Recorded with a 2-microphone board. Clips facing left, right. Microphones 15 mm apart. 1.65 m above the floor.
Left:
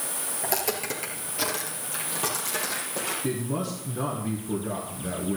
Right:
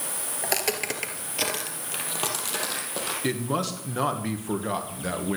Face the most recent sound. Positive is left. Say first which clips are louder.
# right 5 dB
turn(degrees=-45)  # may be behind; listen again after turning